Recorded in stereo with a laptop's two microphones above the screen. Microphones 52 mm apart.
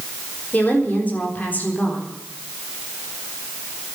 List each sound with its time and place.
0.5 s a woman speaking: 30° left (ahead or behind), 4 m